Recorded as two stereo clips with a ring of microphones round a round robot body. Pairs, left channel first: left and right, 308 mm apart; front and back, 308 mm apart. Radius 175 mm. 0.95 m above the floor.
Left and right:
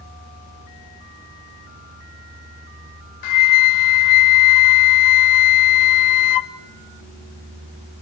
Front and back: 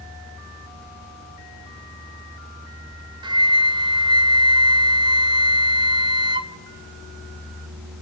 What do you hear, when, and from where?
3.2 s a flute: 105° left, 1.0 m